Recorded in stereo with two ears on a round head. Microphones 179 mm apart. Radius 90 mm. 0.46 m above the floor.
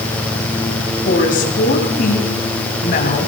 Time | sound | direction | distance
1.1 | a woman speaking | 40° left (ahead or behind) | 4 m